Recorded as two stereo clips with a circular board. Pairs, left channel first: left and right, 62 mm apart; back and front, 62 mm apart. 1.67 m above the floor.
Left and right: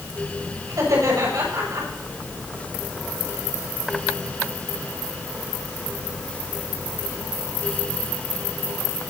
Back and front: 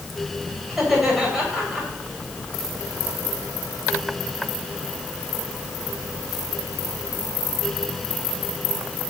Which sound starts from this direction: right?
Laughter, at 0.7 s.